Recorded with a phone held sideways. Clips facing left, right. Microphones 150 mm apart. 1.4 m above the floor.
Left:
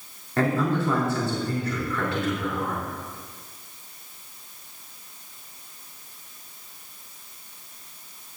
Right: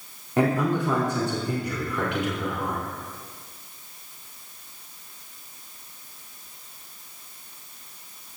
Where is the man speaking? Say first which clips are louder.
Right 1 dB; 20° right (ahead or behind), 3.5 m.